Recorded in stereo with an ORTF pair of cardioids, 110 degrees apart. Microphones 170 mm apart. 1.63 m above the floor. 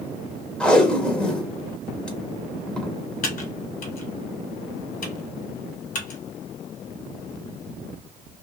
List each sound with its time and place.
0.6 s tape being pulled: 5° left, 0.9 m
3.2 s typing on a keyboard: 55° left, 1.4 m